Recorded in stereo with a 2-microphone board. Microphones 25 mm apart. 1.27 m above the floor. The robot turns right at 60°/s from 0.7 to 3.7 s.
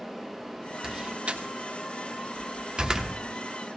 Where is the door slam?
25° right (ahead or behind), 0.9 m; by 3.2 s 10° right (ahead or behind), 0.9 m.